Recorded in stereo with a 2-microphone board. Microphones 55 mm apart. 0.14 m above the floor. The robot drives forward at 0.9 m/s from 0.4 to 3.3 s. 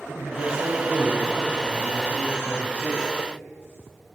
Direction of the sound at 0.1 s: 50° right (ahead or behind).